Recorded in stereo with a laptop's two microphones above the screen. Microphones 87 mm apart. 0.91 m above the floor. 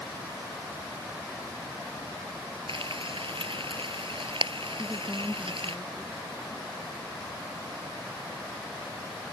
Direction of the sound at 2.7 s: 75° right (ahead or behind).